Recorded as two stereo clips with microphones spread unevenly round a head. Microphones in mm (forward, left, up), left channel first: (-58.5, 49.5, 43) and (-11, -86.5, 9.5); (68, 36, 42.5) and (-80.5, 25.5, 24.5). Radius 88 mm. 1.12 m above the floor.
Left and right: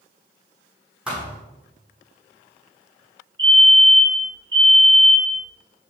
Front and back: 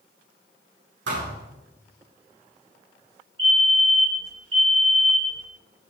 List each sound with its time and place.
1.1 s a thud: 155° right, 6 m
3.4 s a fire alarm: 120° right, 5 m